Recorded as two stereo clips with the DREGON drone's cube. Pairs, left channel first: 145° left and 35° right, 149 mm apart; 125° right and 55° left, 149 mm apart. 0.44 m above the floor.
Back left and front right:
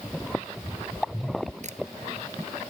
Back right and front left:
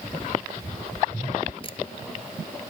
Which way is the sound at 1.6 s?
70° right.